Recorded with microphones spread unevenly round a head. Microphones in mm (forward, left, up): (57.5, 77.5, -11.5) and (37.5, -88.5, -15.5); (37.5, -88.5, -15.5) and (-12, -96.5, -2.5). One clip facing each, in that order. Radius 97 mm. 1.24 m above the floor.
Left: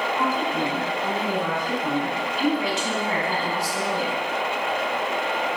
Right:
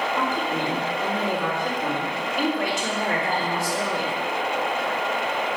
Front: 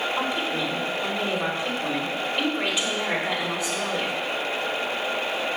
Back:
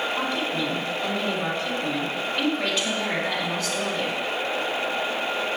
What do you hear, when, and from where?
0.2 s a woman speaking: 70° right, 4 m